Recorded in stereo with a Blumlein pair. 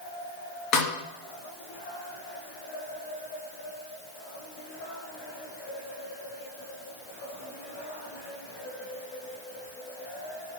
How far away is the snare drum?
About 2.5 m.